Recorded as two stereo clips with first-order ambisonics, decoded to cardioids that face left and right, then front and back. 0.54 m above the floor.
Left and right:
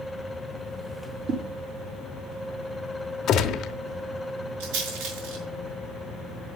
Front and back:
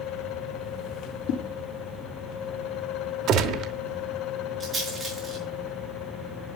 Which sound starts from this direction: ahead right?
A whoosh, at 1.3 s.